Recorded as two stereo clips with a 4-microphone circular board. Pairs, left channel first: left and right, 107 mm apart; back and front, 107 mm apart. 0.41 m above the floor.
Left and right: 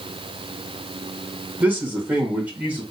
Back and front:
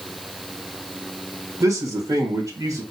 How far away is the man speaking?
About 1.4 m.